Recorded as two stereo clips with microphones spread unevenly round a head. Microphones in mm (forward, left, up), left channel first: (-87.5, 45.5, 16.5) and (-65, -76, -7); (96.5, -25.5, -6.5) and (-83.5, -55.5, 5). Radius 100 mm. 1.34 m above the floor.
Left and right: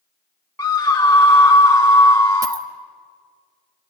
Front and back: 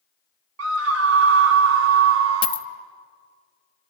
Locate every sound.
0.6 s a scream: 170° left, 1.0 m
2.4 s a dropped coin: 20° right, 0.7 m